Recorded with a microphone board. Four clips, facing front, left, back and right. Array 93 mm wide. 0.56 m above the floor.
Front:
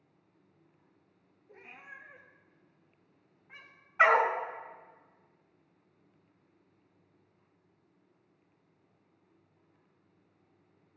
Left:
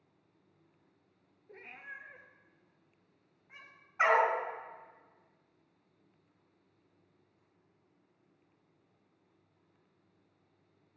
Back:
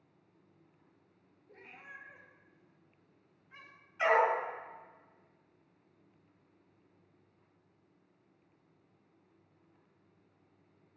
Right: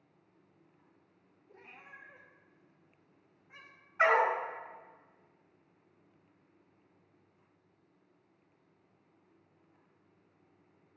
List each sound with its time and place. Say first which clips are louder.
1.5 s a cat meowing: left 5 dB, front 1 dB; 75° left, 1.3 m; by 3.7 s 25° left, 1.7 m
4.0 s a dog barking: even, front 3 dB; 10° left, 1.5 m